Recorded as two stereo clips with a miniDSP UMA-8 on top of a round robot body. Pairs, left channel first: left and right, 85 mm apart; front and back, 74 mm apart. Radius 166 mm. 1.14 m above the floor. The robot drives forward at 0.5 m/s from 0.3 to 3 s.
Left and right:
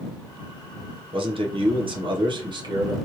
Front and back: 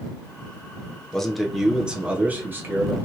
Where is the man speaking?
85° right, 1.2 m; by 3.0 s 125° right, 1.4 m.